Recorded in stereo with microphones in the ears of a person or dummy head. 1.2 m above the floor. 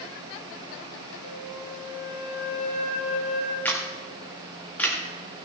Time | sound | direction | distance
1.2 | a flute | 65° left (ahead or behind) | 2 m
3.6 | a camera shutter | 5° left (ahead or behind) | 1.7 m